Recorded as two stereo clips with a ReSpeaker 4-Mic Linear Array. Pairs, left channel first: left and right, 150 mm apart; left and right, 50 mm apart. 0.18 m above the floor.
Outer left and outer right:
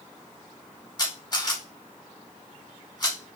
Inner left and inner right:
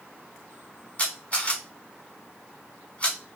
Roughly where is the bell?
No bell in this recording.